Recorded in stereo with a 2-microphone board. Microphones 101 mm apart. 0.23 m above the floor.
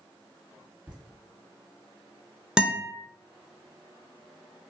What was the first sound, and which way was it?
Laughter, 10° right (ahead or behind).